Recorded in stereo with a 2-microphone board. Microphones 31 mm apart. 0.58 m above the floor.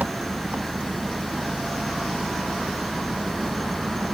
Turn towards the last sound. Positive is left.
turn(degrees=-60)  # may be behind; listen again after turning